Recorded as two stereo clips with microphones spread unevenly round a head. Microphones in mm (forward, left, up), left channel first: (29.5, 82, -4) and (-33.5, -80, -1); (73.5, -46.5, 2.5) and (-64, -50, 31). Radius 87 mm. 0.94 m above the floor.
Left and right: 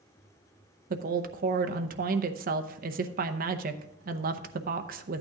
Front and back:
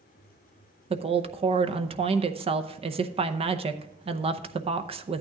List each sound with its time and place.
0.9 s a woman speaking: 130° right, 0.7 m